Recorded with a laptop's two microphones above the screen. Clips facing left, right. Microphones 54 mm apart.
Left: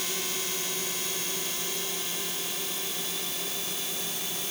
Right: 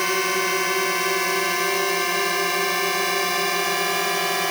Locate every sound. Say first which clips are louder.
0.0 s a drone: right 13 dB; 60° right (ahead or behind); by 4.5 s 75° right (ahead or behind)